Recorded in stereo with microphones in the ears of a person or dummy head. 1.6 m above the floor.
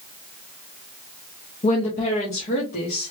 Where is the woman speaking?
35° left (ahead or behind), 0.7 m; by 3.1 s 50° left (ahead or behind), 1.4 m.